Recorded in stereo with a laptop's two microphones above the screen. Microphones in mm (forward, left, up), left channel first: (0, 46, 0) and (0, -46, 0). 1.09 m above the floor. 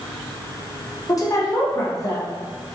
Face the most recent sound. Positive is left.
turn(degrees=40)  # may be behind; listen again after turning